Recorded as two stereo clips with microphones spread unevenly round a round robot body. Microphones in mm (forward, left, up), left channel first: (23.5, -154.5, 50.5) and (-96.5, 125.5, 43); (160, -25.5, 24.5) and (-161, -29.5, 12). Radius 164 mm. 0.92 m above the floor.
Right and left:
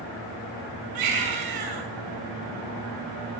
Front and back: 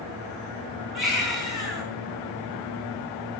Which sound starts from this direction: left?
A baby crying, at 0.9 s.